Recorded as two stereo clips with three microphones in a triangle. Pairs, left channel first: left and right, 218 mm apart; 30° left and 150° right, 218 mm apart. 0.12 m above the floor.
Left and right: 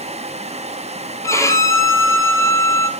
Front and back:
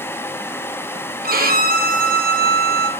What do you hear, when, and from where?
1.2 s a violin: 170° left, 0.7 m